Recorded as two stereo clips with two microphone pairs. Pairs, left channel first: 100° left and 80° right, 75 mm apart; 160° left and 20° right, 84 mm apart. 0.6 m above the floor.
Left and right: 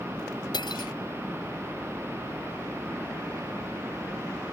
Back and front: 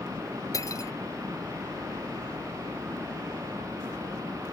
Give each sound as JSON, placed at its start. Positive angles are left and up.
{"t": 0.5, "sound": "cutlery clinking", "azimuth_deg": 115}